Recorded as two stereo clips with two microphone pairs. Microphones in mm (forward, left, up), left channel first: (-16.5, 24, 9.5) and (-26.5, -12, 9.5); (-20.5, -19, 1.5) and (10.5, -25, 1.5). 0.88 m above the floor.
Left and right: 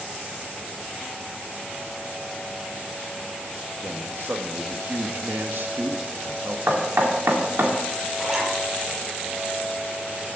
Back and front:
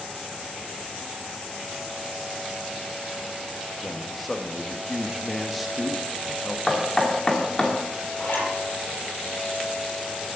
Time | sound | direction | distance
3.8 | a man speaking | 100° right | 1.2 m
6.7 | knocking | 125° right | 2 m
8.2 | a zipper | 175° left | 6 m